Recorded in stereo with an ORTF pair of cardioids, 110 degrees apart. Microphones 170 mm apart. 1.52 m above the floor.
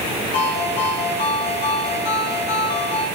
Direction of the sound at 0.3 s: 65° left.